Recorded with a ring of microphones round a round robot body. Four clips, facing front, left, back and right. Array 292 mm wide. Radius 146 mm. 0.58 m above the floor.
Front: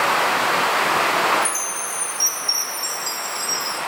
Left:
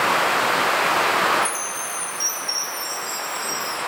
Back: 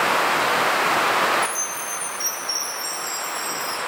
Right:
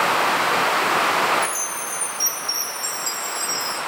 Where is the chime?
40° right, 7 m.